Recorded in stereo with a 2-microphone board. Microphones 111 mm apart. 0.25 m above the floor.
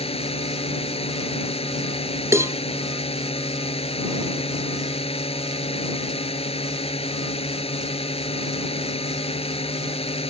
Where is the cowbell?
25° right (ahead or behind).